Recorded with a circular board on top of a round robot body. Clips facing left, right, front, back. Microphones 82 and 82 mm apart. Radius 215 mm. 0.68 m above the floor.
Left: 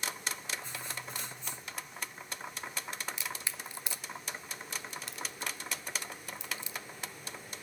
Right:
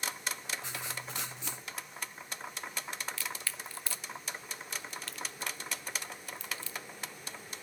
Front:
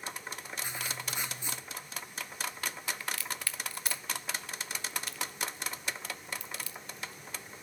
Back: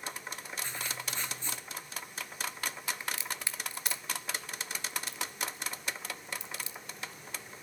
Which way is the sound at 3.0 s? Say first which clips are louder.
Even, even; 135° left.